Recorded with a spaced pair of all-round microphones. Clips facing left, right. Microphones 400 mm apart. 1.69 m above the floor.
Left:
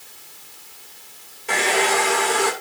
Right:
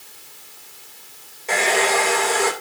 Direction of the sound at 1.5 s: 25° left (ahead or behind).